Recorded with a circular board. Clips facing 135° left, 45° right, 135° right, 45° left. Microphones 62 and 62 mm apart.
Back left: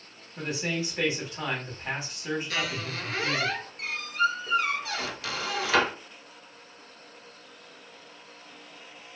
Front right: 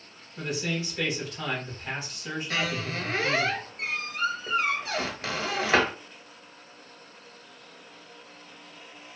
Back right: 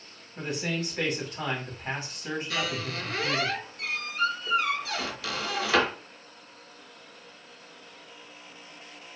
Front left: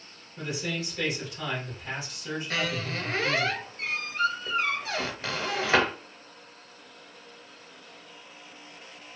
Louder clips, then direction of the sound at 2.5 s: Front right 2 dB, front left 3 dB; 5° left.